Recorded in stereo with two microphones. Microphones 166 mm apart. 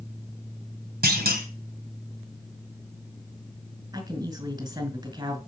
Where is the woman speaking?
25° right (ahead or behind), 2.5 m.